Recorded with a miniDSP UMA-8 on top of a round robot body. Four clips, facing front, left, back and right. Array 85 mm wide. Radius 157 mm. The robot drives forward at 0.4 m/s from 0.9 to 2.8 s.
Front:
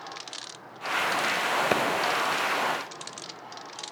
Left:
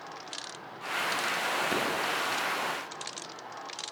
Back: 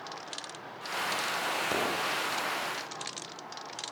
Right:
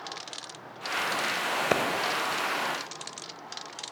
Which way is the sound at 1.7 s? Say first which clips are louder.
Right 8 dB, front 6 dB; 50° right.